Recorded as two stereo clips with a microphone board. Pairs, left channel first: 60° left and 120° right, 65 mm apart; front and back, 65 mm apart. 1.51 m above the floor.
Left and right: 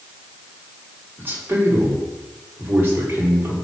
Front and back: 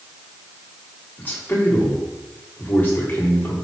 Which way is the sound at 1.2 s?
60° right.